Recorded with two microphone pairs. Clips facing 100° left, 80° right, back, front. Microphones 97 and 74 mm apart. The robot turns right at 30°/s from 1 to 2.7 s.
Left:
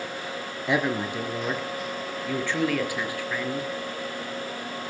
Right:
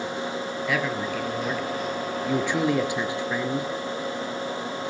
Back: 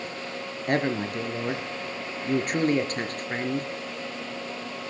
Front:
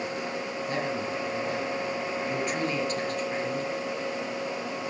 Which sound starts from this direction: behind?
A man speaking, at 0.7 s.